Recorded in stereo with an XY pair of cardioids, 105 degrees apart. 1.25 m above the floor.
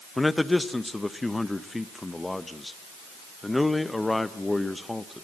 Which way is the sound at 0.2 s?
15° left.